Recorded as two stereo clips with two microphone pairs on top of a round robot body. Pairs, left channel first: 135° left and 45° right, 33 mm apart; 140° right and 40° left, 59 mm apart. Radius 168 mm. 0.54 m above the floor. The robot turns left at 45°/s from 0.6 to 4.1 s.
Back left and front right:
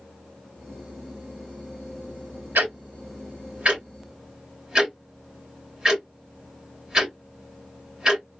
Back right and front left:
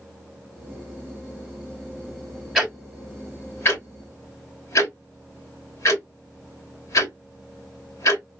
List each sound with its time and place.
2.5 s ticking: 50° right, 2 m; by 8.2 s 120° right, 2 m